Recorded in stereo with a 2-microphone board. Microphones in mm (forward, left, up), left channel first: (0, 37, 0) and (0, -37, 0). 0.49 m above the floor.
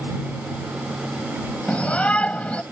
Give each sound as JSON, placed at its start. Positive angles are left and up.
{"t": 1.7, "sound": "a shout", "side_deg": 15}